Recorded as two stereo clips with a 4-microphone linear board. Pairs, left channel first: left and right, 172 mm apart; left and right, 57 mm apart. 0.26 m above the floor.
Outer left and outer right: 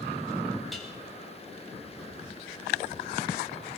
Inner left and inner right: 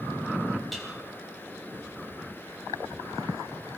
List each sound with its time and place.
0.7 s dishes clattering: centre (ahead or behind), 5.5 m